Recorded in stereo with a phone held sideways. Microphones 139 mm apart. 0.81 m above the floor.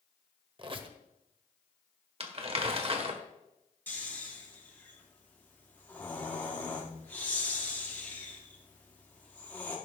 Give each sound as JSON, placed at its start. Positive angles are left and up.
{"t": 0.6, "sound": "a squeak", "side_deg": -35, "distance_m": 1.0}
{"t": 2.2, "sound": "crumpling", "side_deg": -45, "distance_m": 1.3}
{"t": 3.9, "sound": "snoring", "side_deg": 15, "distance_m": 1.9}